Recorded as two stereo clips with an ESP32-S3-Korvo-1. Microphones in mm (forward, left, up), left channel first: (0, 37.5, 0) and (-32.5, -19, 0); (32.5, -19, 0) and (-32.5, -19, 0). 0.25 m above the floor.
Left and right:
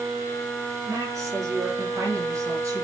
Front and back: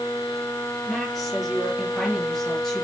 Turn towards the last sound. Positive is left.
turn(degrees=-80)